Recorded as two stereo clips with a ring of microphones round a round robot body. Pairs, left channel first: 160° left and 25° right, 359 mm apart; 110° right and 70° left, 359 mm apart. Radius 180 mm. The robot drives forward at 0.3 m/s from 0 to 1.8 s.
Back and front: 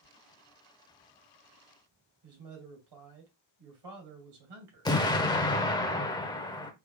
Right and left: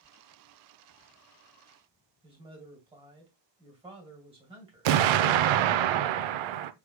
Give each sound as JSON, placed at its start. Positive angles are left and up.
{"t": 2.2, "sound": "a man speaking", "azimuth_deg": -5, "distance_m": 2.0}
{"t": 4.8, "sound": "an explosion", "azimuth_deg": 80, "distance_m": 0.6}